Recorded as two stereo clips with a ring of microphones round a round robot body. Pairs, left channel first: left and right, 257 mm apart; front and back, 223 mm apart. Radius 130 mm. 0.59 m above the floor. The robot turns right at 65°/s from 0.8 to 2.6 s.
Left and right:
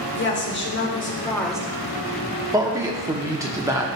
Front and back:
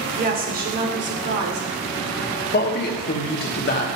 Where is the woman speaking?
135° left, 1.7 m; by 1.7 s 170° right, 1.7 m.